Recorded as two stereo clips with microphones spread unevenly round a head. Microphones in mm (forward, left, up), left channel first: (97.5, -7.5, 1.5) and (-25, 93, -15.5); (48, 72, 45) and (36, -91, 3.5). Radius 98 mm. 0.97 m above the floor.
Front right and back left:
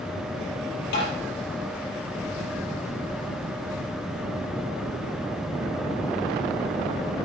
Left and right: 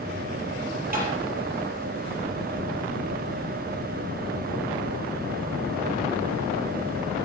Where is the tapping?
55° right, 5 m.